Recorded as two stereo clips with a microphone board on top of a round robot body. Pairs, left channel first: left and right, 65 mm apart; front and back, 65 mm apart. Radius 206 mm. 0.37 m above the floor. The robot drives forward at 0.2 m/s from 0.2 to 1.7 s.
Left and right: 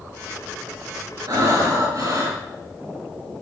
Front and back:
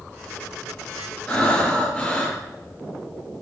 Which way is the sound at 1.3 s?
75° right.